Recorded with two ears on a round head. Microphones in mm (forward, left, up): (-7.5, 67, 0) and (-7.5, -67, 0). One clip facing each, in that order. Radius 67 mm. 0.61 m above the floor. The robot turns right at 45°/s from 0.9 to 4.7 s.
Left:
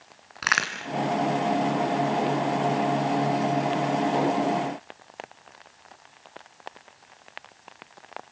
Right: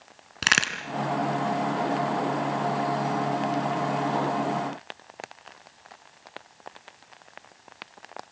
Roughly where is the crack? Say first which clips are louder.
Even; right.